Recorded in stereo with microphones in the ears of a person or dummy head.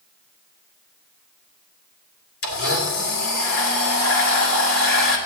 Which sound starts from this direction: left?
A blender, at 2.4 s.